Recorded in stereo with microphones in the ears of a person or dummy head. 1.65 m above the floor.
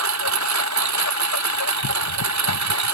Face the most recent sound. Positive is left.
turn(degrees=-80)